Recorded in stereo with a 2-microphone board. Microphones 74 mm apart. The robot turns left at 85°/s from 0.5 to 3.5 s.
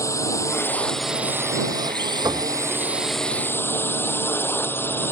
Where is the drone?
45° left; by 5.1 s 150° left.